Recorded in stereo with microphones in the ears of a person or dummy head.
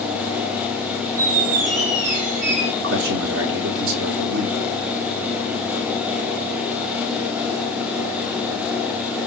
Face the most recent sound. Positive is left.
turn(degrees=-75)  # may be behind; listen again after turning